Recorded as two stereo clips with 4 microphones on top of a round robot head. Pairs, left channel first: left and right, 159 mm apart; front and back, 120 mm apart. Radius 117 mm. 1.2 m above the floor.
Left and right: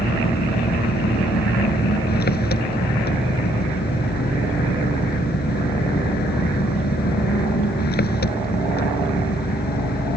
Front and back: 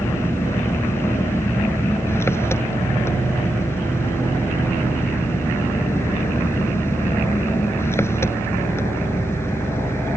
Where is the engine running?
70° left.